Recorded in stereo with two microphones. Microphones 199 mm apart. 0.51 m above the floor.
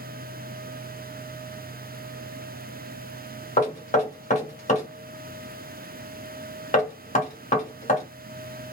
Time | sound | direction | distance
3.6 | knocking | 35° left (ahead or behind) | 1.4 m